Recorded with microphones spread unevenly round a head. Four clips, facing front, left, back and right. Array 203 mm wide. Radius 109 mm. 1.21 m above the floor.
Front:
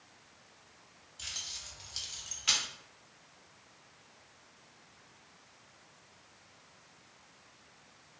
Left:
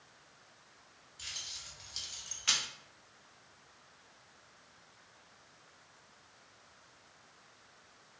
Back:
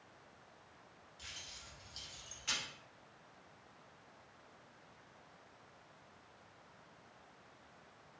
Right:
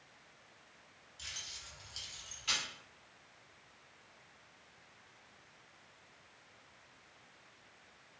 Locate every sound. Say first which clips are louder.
1.2 s keys jangling: even, front 5 dB; 5° left, 1.3 m; by 2.6 s 45° left, 0.9 m